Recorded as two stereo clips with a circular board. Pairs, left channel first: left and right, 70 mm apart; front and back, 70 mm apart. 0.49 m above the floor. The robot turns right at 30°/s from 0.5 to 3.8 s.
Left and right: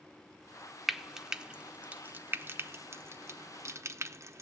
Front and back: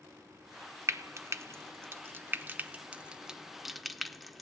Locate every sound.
0.9 s frying: 175° right, 0.6 m; by 4.4 s 90° right, 0.6 m